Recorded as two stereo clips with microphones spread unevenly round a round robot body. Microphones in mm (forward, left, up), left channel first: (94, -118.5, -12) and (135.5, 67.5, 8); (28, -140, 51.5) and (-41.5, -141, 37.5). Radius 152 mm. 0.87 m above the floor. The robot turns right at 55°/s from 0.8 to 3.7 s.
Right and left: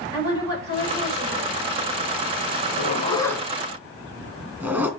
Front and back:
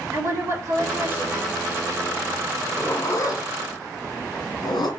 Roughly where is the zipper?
Ahead right.